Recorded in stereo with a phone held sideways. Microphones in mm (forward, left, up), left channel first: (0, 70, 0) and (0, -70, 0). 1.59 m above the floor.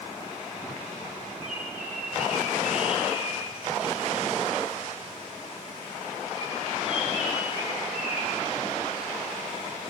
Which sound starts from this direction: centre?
A bird, at 1.4 s.